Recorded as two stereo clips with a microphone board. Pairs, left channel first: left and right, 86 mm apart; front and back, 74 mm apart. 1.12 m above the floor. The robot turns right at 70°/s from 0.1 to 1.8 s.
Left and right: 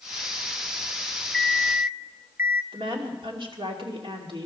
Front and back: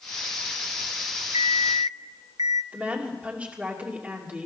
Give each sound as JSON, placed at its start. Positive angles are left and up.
{"t": 1.3, "sound": "an alarm clock", "azimuth_deg": 175, "distance_m": 0.6}
{"t": 2.7, "sound": "a woman speaking", "azimuth_deg": -110, "distance_m": 2.5}